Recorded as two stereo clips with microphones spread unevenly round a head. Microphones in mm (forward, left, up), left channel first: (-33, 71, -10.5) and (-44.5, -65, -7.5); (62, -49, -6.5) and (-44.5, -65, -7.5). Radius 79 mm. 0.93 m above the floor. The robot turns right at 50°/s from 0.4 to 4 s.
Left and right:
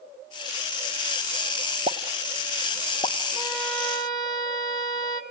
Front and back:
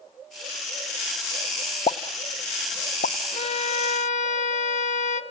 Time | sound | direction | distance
1.9 | a pop | 35° right | 0.7 m
3.3 | a violin | 20° right | 1.7 m